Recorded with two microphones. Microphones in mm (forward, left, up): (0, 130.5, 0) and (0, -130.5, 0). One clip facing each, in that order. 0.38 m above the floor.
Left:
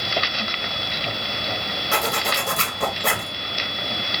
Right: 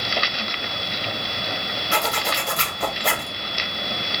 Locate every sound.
1.9 s a zipper: 60° left (ahead or behind), 0.9 m